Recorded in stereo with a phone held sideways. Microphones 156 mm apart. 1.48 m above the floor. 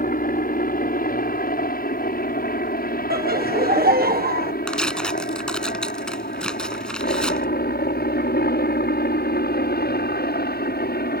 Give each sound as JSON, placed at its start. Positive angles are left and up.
{"t": 0.0, "sound": "a helicopter", "side_deg": 60}
{"t": 3.1, "sound": "laughter", "side_deg": -65}
{"t": 4.7, "sound": "tearing paper", "side_deg": 5}